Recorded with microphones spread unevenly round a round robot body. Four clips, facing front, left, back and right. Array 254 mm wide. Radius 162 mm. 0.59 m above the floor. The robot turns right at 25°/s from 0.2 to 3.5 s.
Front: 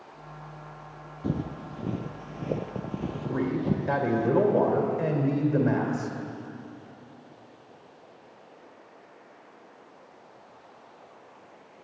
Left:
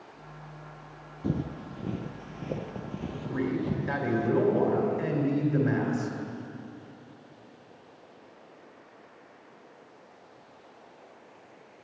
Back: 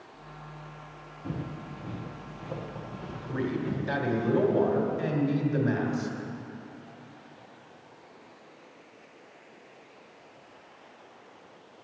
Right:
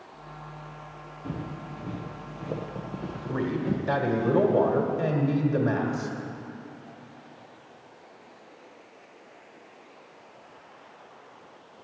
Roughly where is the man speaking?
Ahead right.